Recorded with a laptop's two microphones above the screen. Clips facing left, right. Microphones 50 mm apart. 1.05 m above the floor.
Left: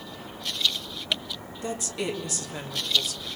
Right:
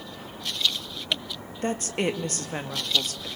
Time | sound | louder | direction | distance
1.6 | a woman speaking | right 4 dB | 45° right (ahead or behind) | 1.4 m